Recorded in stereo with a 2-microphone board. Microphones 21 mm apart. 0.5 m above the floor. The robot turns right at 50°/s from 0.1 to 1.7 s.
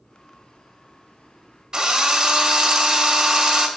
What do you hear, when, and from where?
1.7 s a drill: 30° right (ahead or behind), 1.1 m